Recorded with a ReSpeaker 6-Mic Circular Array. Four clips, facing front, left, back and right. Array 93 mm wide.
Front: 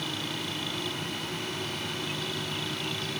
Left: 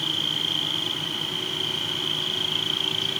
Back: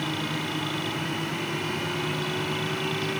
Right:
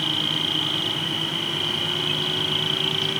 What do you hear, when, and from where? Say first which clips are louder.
0.0 s an insect: right 4 dB, back 5 dB; 90° right